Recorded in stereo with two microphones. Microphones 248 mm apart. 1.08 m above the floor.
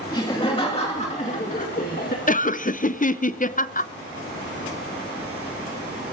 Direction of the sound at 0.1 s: 20° left (ahead or behind).